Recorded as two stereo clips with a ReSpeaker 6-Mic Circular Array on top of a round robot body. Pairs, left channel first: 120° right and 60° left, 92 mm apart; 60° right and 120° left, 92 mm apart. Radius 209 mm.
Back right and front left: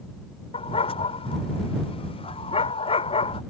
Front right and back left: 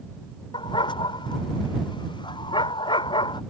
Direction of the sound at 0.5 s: 100° right.